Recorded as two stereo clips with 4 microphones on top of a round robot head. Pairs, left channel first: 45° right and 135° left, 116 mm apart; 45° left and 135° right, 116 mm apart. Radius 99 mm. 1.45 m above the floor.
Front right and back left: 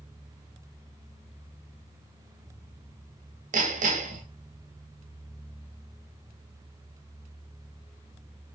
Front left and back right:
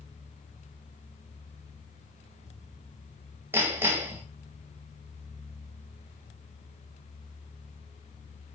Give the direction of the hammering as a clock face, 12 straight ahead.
7 o'clock.